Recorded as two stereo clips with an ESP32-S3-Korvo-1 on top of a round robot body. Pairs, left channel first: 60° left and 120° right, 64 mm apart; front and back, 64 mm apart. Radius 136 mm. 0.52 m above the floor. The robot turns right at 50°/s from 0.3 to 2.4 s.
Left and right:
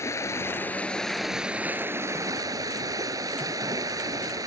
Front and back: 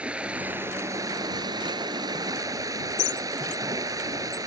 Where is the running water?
105° left; by 4.5 s 150° right.